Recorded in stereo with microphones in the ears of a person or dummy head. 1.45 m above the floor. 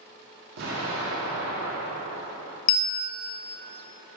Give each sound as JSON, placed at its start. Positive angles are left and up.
{"t": 0.6, "sound": "an explosion", "side_deg": -60, "distance_m": 1.5}
{"t": 2.7, "sound": "a bell", "side_deg": 60, "distance_m": 0.7}